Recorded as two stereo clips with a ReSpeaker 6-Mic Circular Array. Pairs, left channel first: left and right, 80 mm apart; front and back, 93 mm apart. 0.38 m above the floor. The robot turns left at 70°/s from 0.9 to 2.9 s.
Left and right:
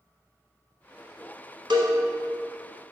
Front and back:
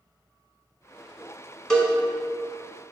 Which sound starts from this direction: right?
A cowbell, at 1.7 s.